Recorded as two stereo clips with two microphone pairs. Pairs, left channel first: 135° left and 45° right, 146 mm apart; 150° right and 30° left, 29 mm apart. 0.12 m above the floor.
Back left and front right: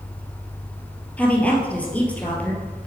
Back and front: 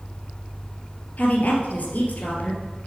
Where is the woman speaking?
145° right, 2 m.